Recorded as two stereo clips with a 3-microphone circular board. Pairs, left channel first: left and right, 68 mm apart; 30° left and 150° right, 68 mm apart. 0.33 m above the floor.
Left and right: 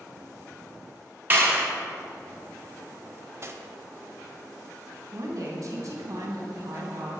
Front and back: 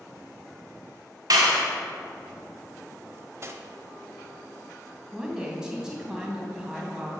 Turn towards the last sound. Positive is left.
turn(degrees=-70)